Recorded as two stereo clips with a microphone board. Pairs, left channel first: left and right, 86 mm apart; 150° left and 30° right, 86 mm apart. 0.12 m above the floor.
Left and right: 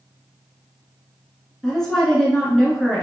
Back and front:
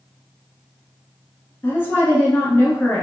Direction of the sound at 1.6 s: 165° left.